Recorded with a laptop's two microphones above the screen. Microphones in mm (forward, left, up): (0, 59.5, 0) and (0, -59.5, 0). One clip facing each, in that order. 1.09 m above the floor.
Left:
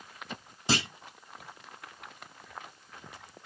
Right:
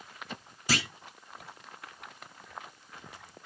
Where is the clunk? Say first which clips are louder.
Left 2 dB; 25° left (ahead or behind), 0.9 m.